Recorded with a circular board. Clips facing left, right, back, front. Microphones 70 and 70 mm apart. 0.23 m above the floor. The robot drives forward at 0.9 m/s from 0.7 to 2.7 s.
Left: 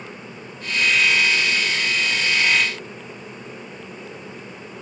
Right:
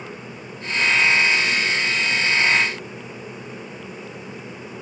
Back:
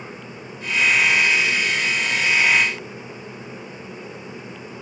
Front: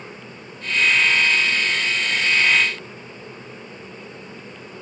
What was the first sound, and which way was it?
Only background noise.